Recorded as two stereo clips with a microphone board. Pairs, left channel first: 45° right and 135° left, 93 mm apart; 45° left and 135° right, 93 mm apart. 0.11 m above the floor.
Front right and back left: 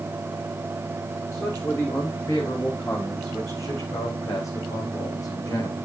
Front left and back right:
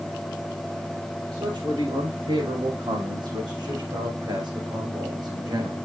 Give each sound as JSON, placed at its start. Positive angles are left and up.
{"t": 1.3, "sound": "a man speaking", "azimuth_deg": -105, "distance_m": 8.5}